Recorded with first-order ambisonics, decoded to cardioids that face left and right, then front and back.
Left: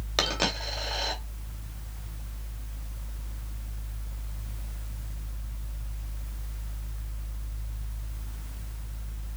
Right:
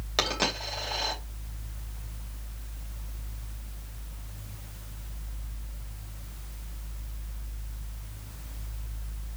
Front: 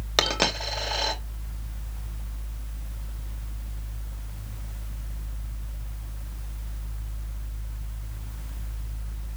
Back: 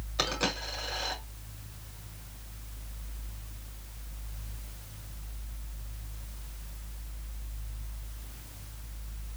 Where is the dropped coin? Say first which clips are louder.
Even, front 7 dB; 5° left, 2.5 m.